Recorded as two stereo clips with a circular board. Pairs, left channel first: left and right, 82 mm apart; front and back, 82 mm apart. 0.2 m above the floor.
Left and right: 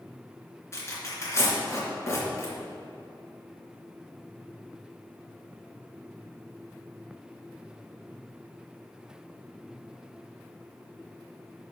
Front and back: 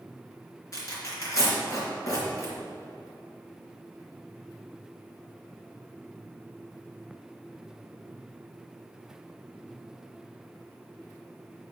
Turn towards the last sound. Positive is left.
turn(degrees=40)